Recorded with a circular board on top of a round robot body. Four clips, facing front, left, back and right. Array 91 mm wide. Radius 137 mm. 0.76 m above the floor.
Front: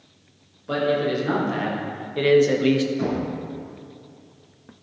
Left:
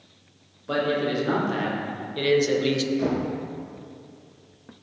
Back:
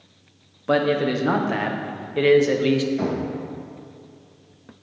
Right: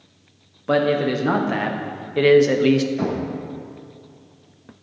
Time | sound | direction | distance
0.7 | a man speaking | 135° right | 1.7 m
3.0 | knocking | 130° right | 3.5 m